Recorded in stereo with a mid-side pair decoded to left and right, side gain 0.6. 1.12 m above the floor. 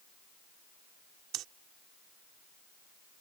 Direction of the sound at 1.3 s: 65° right.